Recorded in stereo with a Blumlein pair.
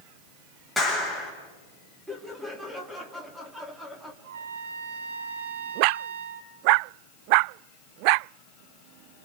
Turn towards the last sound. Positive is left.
turn(degrees=-60)